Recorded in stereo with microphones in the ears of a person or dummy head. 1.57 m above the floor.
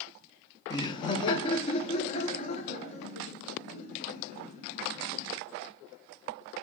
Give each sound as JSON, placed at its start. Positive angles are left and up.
{"t": 0.7, "sound": "laughter", "side_deg": 25, "distance_m": 0.5}